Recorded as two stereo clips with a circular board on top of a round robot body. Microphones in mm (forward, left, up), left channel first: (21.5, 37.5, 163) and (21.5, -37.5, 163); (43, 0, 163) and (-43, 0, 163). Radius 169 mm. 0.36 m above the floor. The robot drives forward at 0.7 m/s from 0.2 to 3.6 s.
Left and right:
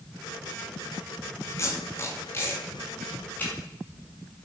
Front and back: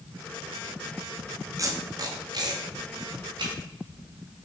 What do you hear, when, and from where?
1.6 s tape being pulled: 135° left, 1.8 m; by 3.5 s 155° left, 3 m